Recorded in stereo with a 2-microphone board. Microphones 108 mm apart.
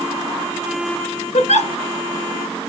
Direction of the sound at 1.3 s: 80° left.